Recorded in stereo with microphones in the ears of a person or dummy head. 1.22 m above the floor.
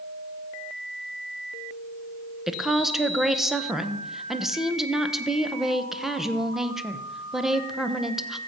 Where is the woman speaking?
5° right (ahead or behind), 1.0 m.